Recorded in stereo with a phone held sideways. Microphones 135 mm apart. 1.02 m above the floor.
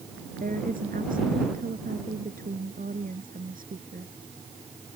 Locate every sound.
0.4 s a woman speaking: 90° right